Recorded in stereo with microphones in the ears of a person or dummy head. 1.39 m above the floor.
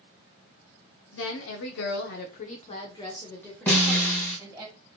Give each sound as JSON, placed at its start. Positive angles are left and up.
{"t": 1.1, "sound": "a woman speaking", "side_deg": 75, "distance_m": 1.0}
{"t": 3.7, "sound": "a snare drum", "side_deg": 10, "distance_m": 1.6}